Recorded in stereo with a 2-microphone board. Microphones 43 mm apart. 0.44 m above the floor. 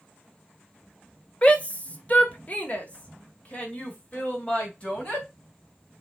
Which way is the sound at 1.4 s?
30° left (ahead or behind).